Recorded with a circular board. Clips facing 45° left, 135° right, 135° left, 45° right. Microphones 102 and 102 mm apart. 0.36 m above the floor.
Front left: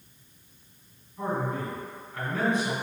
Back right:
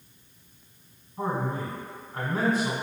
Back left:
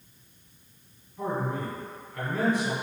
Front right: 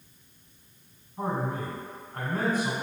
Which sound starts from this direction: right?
A man speaking, at 1.2 s.